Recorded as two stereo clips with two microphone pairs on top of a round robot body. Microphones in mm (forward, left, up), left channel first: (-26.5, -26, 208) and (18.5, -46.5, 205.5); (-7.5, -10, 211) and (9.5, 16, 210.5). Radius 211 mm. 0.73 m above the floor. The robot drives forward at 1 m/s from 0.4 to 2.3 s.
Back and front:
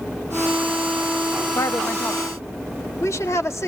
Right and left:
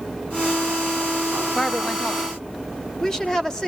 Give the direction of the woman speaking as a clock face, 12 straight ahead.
7 o'clock.